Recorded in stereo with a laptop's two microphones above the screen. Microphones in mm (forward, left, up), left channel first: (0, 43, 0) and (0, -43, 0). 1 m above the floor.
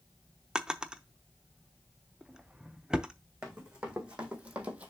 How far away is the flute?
I don't hear a flute.